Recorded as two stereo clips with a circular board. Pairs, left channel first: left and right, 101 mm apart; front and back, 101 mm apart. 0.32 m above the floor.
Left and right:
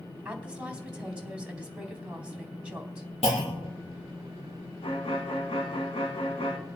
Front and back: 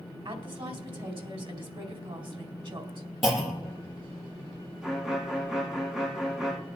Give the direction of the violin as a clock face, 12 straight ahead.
9 o'clock.